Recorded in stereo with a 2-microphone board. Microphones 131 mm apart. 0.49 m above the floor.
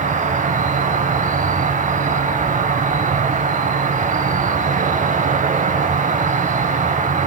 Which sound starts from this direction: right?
An insect, at 0.0 s.